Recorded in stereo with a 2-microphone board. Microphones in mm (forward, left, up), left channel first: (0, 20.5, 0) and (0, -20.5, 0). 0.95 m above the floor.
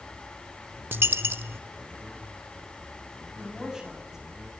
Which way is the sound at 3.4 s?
10° right (ahead or behind).